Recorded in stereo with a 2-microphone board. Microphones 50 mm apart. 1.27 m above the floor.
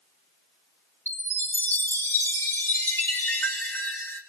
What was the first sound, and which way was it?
A chime, 55° left (ahead or behind).